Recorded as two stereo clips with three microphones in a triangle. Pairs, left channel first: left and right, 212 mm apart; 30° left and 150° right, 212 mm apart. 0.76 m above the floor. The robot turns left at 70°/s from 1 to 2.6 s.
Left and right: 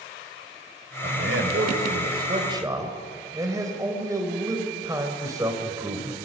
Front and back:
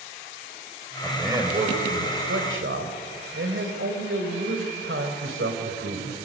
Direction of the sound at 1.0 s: 55° right.